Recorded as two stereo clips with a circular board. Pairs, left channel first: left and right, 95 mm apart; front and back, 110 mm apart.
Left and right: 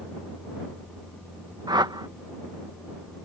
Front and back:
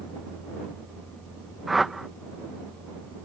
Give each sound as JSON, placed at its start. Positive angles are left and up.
{"t": 1.7, "sound": "a whoosh", "azimuth_deg": -95}